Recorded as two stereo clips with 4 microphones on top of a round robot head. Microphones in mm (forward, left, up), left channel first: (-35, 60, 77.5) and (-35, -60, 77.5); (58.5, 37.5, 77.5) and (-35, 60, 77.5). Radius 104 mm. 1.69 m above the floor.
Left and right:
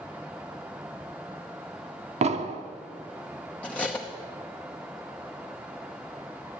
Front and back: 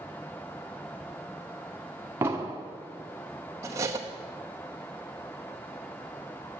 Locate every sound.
2.2 s an explosion: 120° right, 0.9 m
3.6 s cutlery clinking: 160° left, 0.8 m